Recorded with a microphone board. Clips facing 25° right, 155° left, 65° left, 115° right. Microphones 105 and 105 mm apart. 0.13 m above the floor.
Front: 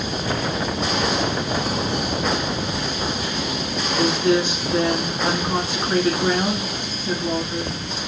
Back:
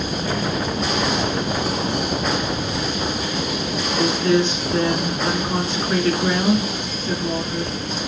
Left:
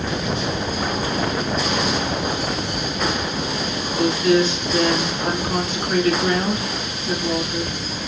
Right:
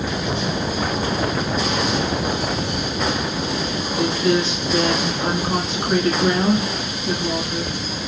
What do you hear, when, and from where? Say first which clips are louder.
4.0 s a woman speaking: back 1 dB, left 2 dB; 85° right, 1.2 m